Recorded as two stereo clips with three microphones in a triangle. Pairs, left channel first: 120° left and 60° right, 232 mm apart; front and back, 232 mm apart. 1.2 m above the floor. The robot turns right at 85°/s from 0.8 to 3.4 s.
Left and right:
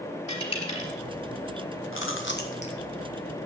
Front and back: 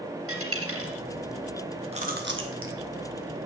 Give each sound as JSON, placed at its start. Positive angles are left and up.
{"t": 0.3, "sound": "a dropped coin", "azimuth_deg": -175, "distance_m": 3.5}
{"t": 1.9, "sound": "chewing", "azimuth_deg": 120, "distance_m": 1.3}